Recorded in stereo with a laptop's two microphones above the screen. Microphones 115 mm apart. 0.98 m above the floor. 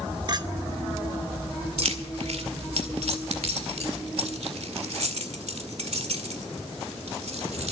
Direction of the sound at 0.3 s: 40° right (ahead or behind).